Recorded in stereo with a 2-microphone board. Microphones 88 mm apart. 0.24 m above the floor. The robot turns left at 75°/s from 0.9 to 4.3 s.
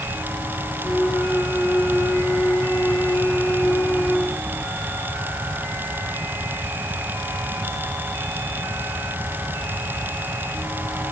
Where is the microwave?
No microwave in this recording.